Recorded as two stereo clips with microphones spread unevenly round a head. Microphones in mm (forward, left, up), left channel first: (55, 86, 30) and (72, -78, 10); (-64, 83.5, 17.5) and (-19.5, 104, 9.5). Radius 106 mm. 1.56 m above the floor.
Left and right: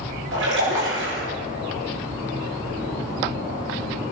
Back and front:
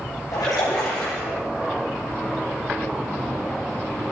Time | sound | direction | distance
0.3 | a splash | 110° right | 8.5 m